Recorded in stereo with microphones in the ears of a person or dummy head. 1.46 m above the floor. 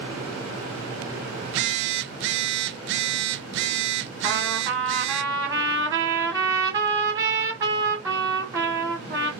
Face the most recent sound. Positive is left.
turn(degrees=-20)  # may be behind; listen again after turning